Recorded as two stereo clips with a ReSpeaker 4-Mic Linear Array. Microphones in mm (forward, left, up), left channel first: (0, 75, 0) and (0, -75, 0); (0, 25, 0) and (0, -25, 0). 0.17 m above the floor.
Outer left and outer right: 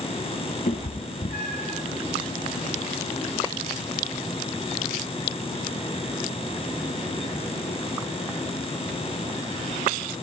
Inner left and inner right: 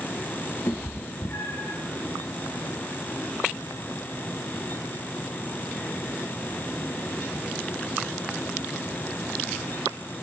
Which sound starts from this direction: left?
A cat meowing, at 0.7 s.